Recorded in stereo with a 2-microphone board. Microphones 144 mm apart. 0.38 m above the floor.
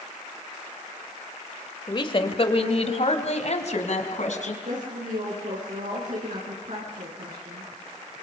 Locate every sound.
1.9 s a woman speaking: 35° left (ahead or behind), 1.4 m; by 4.5 s 65° left (ahead or behind), 3.5 m
4.6 s a woman speaking: 75° right (ahead or behind), 5 m